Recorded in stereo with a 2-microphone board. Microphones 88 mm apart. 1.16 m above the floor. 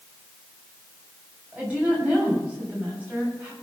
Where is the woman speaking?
15° right (ahead or behind), 7.5 m.